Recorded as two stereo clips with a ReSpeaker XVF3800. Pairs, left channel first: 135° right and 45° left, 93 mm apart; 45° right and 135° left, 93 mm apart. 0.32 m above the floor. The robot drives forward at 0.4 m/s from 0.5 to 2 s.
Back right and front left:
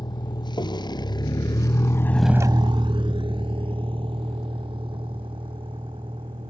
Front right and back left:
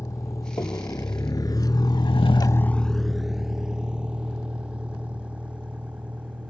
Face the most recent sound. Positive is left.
turn(degrees=60)